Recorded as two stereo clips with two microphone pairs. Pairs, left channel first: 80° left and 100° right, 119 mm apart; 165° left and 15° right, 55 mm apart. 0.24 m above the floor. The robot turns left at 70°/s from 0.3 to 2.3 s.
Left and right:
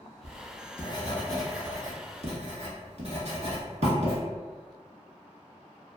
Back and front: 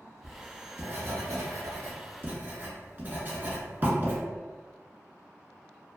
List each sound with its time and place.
0.2 s writing: 70° left, 0.9 m; by 4.2 s 70° right, 0.9 m